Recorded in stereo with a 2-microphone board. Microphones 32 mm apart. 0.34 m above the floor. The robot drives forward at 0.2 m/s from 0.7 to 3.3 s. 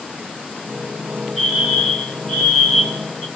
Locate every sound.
1.4 s a fire alarm: 5° left (ahead or behind), 3.5 m